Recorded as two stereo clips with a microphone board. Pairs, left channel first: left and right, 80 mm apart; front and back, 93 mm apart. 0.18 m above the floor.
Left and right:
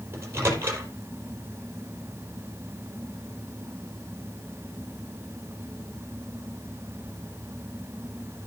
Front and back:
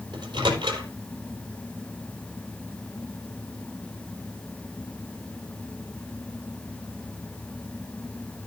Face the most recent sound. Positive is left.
turn(degrees=-150)